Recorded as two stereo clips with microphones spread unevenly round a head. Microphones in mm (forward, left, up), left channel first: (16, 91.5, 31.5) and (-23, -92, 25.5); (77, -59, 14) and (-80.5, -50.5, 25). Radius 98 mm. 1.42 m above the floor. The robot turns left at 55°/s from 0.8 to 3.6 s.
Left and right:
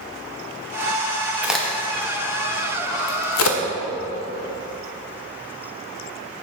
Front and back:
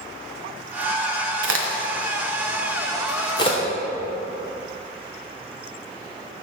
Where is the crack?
175° left, 0.7 m; by 3.6 s 55° left, 0.7 m.